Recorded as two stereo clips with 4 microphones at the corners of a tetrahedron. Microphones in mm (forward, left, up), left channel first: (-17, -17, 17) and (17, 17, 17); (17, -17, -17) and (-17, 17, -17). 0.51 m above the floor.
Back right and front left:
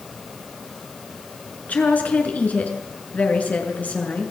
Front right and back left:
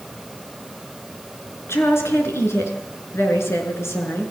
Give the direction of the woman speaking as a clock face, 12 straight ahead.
3 o'clock.